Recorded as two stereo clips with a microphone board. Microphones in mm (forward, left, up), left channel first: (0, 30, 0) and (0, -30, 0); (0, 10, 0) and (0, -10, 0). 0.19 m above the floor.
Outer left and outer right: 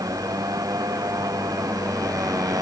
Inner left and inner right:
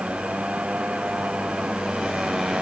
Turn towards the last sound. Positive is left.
turn(degrees=-85)